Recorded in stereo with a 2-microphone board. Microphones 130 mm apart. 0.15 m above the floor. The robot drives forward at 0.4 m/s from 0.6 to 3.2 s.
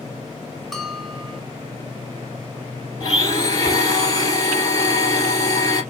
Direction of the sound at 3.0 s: 30° left (ahead or behind).